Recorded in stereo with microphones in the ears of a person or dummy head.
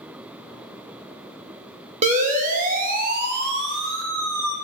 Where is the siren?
40° right (ahead or behind), 2.5 m; by 4.5 s 75° right (ahead or behind), 1.8 m.